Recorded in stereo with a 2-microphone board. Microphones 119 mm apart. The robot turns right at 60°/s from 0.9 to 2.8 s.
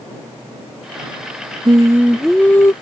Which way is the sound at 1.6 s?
35° right.